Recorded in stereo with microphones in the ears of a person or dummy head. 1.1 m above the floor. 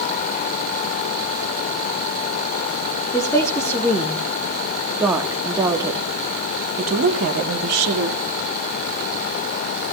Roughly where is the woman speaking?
Centre.